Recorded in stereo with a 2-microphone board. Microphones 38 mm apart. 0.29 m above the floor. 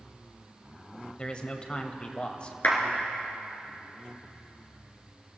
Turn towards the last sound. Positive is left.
turn(degrees=55)  # may be behind; listen again after turning